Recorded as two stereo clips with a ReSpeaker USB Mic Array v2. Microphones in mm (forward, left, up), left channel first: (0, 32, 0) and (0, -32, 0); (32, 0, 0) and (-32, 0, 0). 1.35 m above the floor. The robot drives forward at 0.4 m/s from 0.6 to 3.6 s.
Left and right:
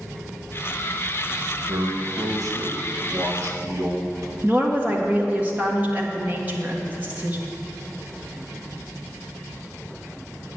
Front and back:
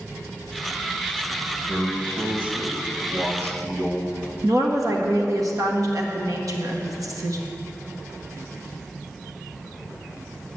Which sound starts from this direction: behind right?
A woman speaking, at 4.4 s.